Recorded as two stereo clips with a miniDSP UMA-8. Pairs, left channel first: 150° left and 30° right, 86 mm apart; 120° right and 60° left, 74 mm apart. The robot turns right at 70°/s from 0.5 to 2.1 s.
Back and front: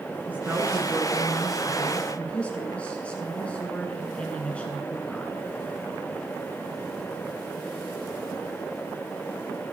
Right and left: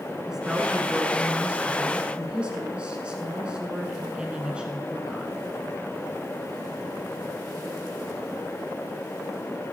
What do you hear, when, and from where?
0.3 s a woman speaking: 10° right, 1.4 m; by 5.4 s 105° left, 1.4 m